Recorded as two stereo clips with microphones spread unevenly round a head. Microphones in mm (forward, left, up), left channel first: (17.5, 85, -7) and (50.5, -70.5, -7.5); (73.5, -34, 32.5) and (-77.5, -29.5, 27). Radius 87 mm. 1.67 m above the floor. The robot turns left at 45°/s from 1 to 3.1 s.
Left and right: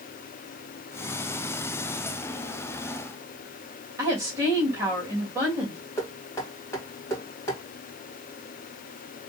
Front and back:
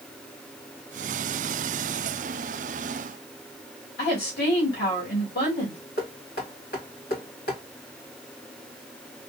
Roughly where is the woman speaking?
Ahead.